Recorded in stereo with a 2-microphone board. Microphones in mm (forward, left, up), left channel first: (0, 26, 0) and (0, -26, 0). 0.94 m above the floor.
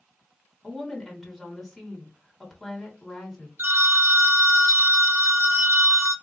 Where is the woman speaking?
Centre (ahead or behind), 1.4 m.